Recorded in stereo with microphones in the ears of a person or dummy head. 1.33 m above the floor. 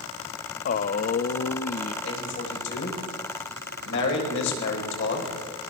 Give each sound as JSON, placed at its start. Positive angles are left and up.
{"t": 0.7, "sound": "a man speaking", "side_deg": 45, "distance_m": 0.9}
{"t": 2.0, "sound": "a man speaking", "side_deg": 70, "distance_m": 7.5}